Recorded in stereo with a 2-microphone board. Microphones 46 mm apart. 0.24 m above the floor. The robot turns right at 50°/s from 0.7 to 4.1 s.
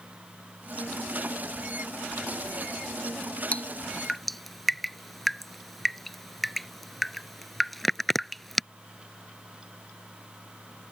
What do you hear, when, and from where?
3.5 s dripping: 30° left (ahead or behind); by 8.6 s 5° left (ahead or behind)